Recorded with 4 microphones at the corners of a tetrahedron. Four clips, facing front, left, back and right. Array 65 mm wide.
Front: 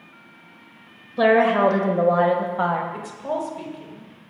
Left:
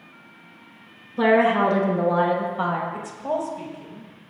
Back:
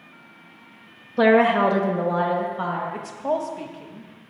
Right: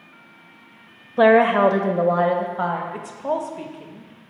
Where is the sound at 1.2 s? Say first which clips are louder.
Right 4 dB, even; 100° right, 1.1 m; by 2.8 s 25° right, 1.7 m.